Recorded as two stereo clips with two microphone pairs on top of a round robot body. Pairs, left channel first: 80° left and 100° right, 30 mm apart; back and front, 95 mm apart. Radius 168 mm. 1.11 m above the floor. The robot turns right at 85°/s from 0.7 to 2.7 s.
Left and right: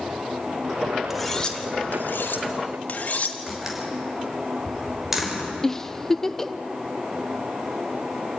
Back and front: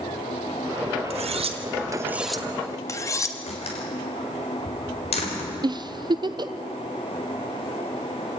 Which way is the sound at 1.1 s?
15° right.